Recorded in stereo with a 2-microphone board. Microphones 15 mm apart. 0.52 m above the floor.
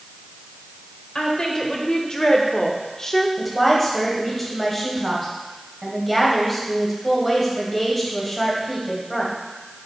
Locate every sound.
1.1 s a woman speaking: 55° left (ahead or behind), 1.7 m; by 3.3 s 20° left (ahead or behind), 0.9 m
3.4 s a woman speaking: centre (ahead or behind), 2.5 m